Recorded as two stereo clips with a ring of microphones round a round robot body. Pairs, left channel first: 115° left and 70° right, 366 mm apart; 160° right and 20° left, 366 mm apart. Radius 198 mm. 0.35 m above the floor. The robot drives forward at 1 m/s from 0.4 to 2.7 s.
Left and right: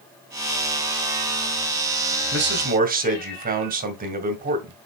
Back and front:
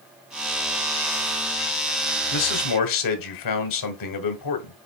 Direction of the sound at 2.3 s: 120° right.